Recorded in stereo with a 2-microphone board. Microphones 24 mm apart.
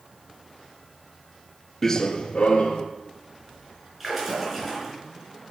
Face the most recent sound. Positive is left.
turn(degrees=-5)  # may be behind; listen again after turning